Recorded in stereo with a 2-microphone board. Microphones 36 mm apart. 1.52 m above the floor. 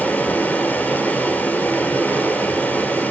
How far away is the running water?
About 3 m.